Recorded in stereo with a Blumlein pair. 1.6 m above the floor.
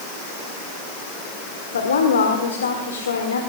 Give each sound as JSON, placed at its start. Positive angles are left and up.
{"t": 1.7, "sound": "a woman speaking", "azimuth_deg": 65, "distance_m": 1.5}